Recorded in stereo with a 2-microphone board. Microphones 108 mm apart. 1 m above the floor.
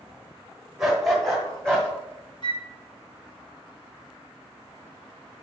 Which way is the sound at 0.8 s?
5° right (ahead or behind).